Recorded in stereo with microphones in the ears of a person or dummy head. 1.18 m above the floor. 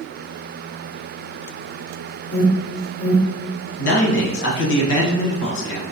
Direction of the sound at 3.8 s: 60° left (ahead or behind).